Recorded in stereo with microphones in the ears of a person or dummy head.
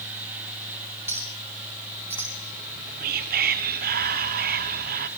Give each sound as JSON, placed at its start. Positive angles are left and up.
{"t": 1.1, "sound": "a clink", "side_deg": -10, "distance_m": 1.4}
{"t": 2.6, "sound": "whispering", "side_deg": -45, "distance_m": 0.8}